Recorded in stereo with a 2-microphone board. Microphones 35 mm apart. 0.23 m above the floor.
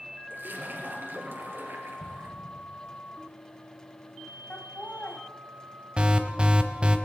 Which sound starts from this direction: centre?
An explosion, at 2.0 s.